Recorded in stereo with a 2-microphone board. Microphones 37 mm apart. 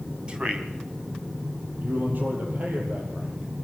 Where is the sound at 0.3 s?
25° right (ahead or behind), 2.5 m.